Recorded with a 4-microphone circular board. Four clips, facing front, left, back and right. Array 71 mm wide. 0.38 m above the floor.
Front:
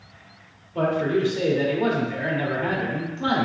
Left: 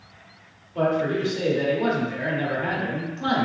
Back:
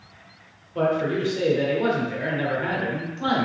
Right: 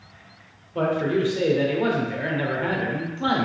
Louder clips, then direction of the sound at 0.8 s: Even, front 1 dB; 90° right.